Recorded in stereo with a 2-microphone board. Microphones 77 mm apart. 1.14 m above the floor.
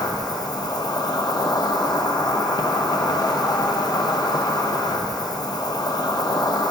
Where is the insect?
65° left (ahead or behind), 0.7 m.